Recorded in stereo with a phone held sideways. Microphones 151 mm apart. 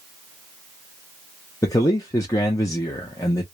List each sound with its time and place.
1.6 s a man speaking: 20° left (ahead or behind), 0.6 m